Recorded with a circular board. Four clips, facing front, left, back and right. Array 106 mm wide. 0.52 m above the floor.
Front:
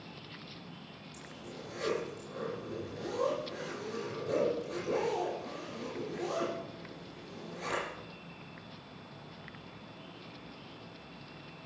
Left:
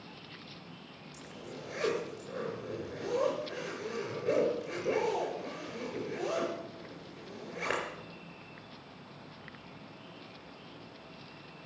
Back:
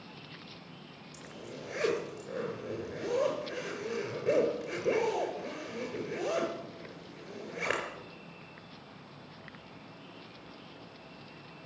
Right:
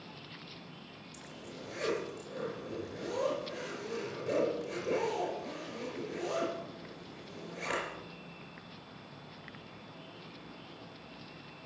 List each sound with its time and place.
1.1 s a zipper: 160° left, 4 m